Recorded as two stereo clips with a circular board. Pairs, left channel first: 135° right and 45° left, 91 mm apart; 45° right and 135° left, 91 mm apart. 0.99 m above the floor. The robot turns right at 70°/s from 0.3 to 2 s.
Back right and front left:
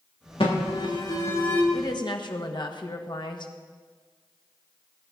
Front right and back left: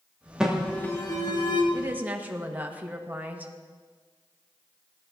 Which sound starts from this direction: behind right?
An alarm, at 0.4 s.